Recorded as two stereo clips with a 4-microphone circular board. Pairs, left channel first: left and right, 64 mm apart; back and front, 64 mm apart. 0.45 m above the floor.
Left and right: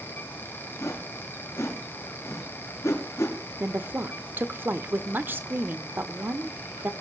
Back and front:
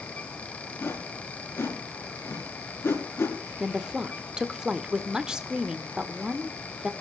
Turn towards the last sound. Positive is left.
turn(degrees=-65)